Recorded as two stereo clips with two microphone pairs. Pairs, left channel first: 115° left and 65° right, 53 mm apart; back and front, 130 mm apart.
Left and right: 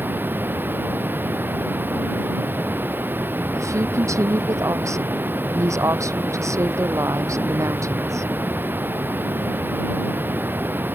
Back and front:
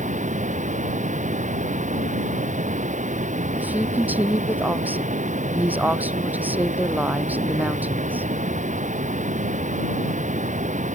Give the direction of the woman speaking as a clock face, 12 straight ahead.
2 o'clock.